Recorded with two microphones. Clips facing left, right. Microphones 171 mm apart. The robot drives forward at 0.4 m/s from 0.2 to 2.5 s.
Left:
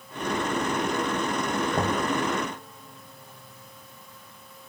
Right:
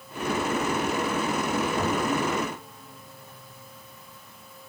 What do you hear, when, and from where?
1.7 s knocking: 55° left (ahead or behind), 0.9 m; by 2.1 s 65° left (ahead or behind), 0.8 m